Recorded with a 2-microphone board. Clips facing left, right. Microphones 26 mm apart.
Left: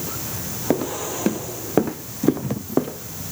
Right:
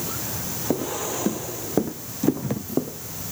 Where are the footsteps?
60° left (ahead or behind); by 3.2 s 70° left (ahead or behind).